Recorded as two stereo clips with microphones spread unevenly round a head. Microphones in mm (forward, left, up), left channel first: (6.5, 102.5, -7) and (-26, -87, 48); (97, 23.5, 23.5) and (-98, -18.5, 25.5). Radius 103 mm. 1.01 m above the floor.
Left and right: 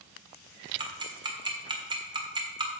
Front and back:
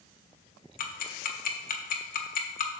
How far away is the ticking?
About 1.3 m.